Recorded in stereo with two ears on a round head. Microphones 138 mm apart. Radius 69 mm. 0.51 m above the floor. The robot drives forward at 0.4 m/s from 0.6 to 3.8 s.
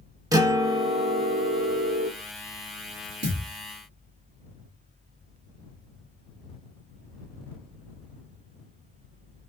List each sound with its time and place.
0.3 s a guitar: 25° right (ahead or behind), 0.6 m; by 2.1 s 30° right (ahead or behind), 0.5 m
3.2 s a thud: 85° right, 1.4 m